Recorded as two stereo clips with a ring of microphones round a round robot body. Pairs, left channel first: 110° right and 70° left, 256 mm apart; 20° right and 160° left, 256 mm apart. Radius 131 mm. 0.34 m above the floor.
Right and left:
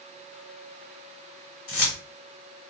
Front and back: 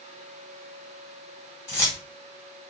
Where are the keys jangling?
100° right, 1.3 m.